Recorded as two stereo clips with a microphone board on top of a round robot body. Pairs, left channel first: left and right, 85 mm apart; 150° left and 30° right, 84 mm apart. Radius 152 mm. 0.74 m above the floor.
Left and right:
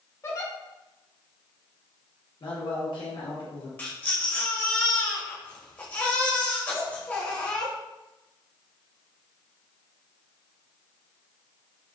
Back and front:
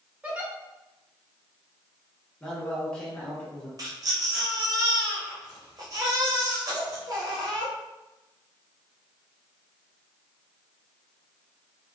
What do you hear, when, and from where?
0.2 s a giggle: 45° left, 1.1 m
2.4 s a man speaking: 75° left, 1.7 m
3.8 s a baby crying: 20° left, 0.8 m